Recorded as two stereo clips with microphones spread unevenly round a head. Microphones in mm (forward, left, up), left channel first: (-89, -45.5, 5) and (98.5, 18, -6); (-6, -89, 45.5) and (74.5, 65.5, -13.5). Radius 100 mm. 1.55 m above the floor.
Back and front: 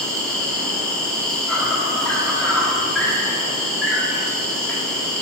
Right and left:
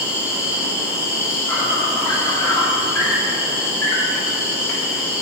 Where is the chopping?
I don't hear chopping.